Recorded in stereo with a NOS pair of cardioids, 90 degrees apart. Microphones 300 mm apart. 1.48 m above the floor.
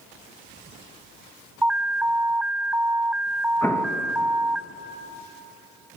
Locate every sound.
1.6 s an alarm: 5° right, 1.0 m
3.6 s an explosion: 5° left, 2.5 m